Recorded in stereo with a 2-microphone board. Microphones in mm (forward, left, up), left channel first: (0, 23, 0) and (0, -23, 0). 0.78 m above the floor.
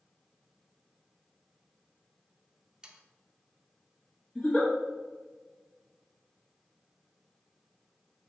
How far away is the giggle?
About 1.1 m.